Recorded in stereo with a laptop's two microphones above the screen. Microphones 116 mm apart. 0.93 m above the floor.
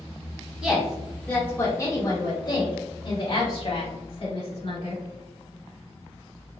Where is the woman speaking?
5° right (ahead or behind), 0.9 m; by 5.0 s 60° left (ahead or behind), 2.5 m.